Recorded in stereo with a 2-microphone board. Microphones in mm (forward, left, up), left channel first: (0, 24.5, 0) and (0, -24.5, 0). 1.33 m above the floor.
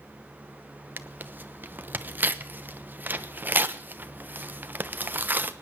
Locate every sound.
1.0 s tearing paper: 40° right (ahead or behind), 0.9 m